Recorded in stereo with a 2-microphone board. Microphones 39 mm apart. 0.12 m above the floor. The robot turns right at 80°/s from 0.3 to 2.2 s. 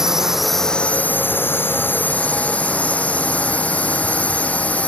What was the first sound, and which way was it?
A drone, 15° right.